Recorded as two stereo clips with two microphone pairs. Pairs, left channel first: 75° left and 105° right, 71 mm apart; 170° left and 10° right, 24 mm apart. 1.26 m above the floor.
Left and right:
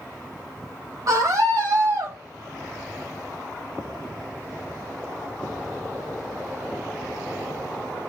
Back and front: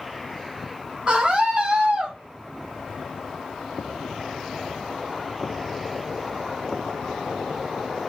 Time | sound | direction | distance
1.1 | a scream | 70° right | 4.5 m